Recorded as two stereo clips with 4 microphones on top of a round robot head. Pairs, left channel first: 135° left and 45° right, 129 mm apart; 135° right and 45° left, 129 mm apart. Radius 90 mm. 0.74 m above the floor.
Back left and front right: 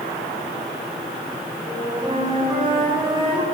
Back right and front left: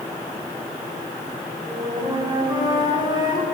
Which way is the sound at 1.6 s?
5° right.